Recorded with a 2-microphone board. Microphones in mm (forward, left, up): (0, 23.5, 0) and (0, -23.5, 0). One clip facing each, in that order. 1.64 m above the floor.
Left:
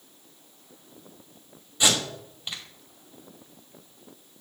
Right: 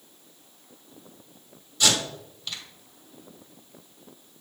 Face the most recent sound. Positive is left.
turn(degrees=25)  # may be behind; listen again after turning